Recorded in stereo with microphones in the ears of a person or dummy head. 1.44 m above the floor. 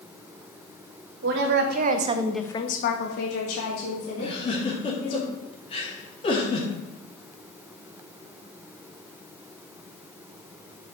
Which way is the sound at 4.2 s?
35° left (ahead or behind).